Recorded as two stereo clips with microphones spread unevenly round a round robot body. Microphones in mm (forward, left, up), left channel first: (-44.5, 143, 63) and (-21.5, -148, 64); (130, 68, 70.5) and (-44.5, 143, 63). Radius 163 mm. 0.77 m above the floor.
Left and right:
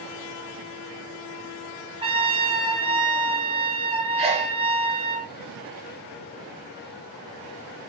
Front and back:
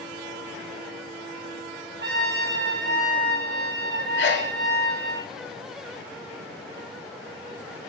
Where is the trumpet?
155° right, 4.5 m.